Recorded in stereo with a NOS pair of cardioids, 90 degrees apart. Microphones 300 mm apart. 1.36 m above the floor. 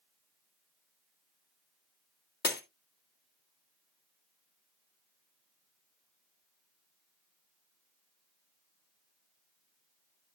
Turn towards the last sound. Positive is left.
turn(degrees=35)